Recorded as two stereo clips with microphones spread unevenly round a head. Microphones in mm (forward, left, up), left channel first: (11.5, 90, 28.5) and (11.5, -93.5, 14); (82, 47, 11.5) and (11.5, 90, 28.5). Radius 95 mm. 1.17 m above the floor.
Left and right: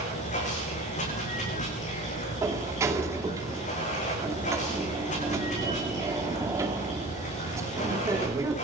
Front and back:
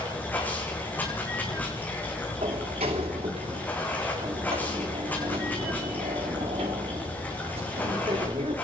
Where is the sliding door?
165° right, 2.5 m.